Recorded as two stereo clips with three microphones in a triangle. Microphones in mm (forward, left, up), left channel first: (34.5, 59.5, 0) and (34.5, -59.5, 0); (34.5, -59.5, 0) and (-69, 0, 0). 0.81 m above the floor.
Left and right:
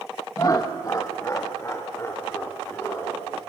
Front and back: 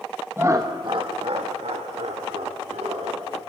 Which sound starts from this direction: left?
Laughter, at 0.4 s.